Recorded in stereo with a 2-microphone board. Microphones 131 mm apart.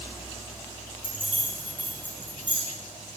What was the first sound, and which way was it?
Keys jangling, 40° left (ahead or behind).